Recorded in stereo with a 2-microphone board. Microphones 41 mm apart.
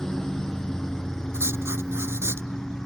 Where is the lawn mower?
15° left (ahead or behind).